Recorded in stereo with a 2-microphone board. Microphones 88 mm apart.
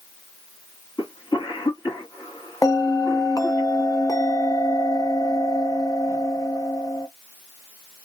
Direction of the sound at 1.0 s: 55° left (ahead or behind).